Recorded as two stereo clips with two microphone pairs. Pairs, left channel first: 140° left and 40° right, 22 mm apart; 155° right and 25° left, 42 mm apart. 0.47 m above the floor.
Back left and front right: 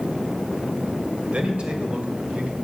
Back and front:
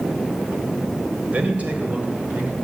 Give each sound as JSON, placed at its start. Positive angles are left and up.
{"t": 1.3, "sound": "a man speaking", "azimuth_deg": -20, "distance_m": 2.5}